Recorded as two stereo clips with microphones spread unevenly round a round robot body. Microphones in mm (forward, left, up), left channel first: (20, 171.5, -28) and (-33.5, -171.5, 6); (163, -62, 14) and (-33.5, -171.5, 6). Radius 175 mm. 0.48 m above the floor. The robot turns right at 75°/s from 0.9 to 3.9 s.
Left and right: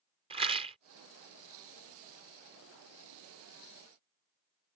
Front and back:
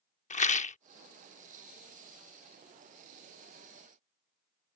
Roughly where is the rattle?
Ahead.